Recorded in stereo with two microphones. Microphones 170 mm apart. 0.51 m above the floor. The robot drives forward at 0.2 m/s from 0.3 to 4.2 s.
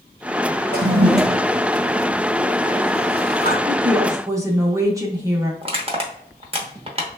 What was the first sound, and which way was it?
A toilet flushing, 70° right (ahead or behind).